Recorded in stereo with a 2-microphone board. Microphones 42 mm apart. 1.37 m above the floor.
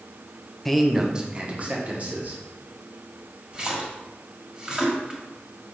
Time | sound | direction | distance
0.7 | a man speaking | 5° left (ahead or behind) | 0.7 m
3.5 | a splash | 20° right (ahead or behind) | 1.6 m